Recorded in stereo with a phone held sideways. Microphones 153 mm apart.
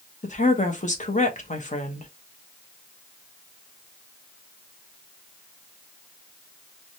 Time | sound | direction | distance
0.2 | a woman speaking | 50° left (ahead or behind) | 0.9 m